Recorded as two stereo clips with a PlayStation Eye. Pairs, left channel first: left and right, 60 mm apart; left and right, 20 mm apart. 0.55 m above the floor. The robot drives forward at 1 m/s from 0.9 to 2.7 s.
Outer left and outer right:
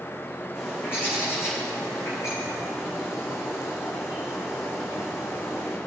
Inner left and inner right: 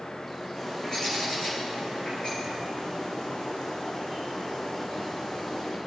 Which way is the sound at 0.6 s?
40° left (ahead or behind).